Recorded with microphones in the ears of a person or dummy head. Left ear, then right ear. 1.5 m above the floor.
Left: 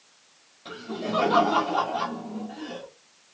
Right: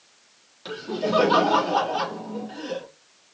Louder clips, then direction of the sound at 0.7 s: Right 6 dB; 55° right (ahead or behind).